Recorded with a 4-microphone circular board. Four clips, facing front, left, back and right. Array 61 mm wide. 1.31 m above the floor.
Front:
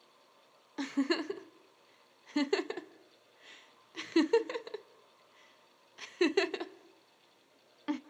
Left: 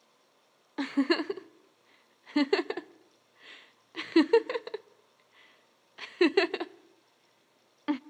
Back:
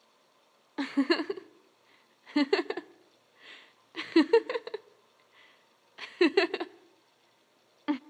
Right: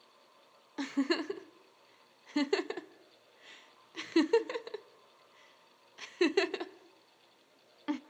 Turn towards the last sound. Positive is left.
turn(degrees=140)